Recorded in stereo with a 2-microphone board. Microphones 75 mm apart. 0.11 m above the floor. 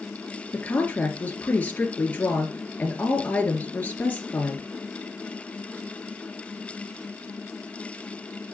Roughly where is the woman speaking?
Left.